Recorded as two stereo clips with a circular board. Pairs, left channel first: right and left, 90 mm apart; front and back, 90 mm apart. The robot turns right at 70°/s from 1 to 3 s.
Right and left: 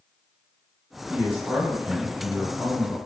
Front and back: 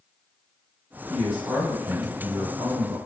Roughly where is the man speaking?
Left.